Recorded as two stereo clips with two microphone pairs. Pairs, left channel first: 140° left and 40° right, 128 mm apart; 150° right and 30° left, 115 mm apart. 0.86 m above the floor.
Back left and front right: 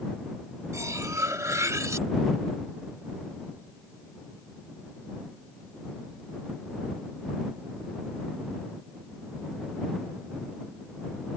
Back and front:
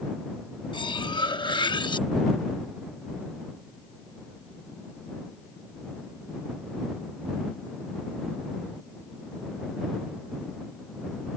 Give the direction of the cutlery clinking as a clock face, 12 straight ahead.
4 o'clock.